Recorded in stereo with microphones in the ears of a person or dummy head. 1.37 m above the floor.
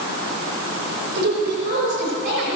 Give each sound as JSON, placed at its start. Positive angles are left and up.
{"t": 1.1, "sound": "a woman speaking", "side_deg": -65, "distance_m": 5.5}